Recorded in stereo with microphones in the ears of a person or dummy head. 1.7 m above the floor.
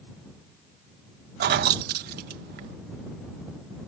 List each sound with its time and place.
1.4 s keys jangling: 45° right (ahead or behind)